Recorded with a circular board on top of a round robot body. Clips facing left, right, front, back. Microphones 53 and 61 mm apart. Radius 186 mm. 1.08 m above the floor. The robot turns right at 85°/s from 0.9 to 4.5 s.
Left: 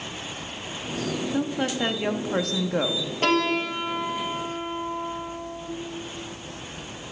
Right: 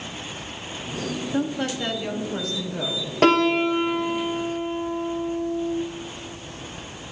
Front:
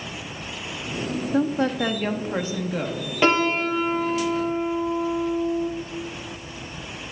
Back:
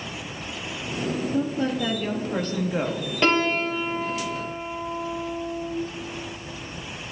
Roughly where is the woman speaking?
Ahead.